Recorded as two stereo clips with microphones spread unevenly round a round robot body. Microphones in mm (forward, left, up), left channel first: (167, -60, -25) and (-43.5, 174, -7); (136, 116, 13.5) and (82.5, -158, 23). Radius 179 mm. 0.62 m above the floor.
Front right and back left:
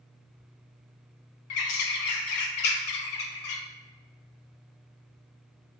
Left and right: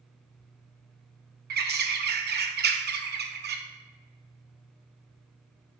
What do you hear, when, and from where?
1.5 s a bird: 45° right, 0.5 m